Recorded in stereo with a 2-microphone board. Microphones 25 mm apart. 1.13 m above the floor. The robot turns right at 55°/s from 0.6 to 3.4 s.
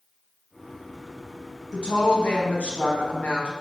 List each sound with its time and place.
1.7 s a woman speaking: 35° left, 1.0 m; by 3.5 s 125° left, 1.0 m